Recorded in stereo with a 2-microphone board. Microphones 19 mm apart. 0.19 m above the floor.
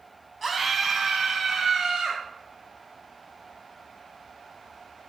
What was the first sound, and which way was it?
A scream, centre (ahead or behind).